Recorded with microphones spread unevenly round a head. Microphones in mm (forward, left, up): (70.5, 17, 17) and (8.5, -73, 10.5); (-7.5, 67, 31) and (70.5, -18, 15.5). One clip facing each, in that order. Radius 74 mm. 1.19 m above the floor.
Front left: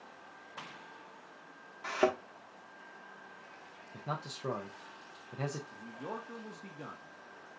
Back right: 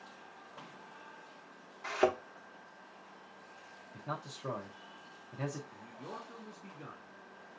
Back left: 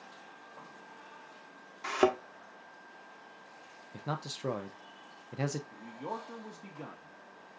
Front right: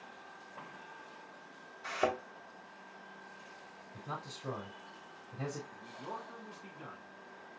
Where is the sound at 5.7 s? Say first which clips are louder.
Front left 4 dB, back left 4 dB; 90° left, 1.0 m.